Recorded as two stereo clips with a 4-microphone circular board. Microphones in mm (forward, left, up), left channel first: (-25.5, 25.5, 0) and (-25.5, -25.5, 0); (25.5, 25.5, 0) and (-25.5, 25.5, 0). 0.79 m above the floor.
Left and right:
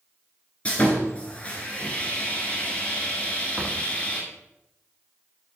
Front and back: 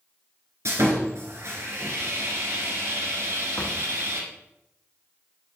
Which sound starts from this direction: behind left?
Sawing, at 0.7 s.